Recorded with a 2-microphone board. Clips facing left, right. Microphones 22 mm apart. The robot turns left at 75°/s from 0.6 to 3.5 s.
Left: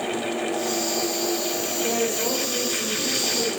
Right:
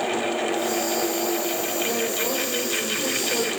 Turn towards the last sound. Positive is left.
turn(degrees=-90)